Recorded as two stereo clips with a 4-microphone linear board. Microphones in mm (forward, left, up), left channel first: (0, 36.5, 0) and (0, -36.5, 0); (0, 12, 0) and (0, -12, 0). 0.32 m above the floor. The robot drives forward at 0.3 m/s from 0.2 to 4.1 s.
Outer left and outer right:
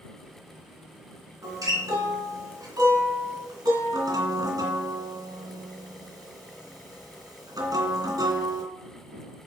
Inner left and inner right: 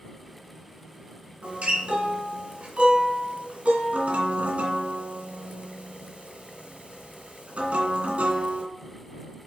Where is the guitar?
55° right (ahead or behind), 2.5 m; by 8.6 s 70° right (ahead or behind), 2.5 m.